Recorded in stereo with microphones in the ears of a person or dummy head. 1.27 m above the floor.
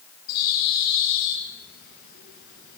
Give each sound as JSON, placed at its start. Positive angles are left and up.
{"t": 0.3, "sound": "a bird", "side_deg": 55, "distance_m": 3.0}